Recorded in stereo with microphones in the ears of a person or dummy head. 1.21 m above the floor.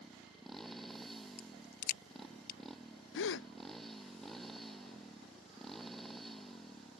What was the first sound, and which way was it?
A motorcycle, centre (ahead or behind).